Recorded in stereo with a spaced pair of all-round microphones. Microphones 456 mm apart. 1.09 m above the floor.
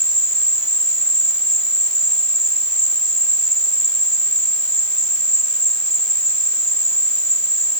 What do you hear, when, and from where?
0.0 s an insect: 80° right